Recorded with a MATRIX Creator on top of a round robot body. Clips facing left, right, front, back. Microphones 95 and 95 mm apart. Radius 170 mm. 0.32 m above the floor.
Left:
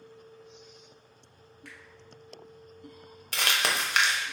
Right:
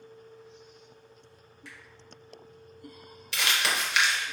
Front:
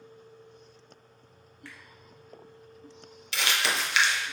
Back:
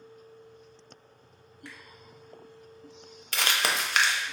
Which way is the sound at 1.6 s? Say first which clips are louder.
Even, back 1 dB; 110° left.